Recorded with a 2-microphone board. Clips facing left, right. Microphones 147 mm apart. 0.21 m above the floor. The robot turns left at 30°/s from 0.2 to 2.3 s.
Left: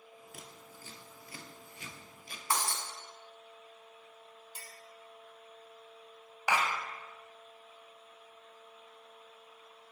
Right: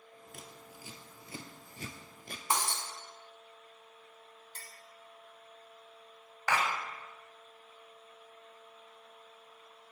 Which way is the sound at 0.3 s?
5° left (ahead or behind).